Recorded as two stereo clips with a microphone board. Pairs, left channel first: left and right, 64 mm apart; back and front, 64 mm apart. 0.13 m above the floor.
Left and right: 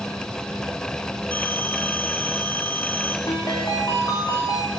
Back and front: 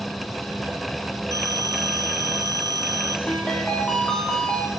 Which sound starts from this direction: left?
A ringtone, at 3.3 s.